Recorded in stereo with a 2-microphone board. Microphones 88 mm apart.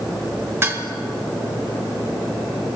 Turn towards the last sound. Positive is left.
turn(degrees=-30)  # may be behind; listen again after turning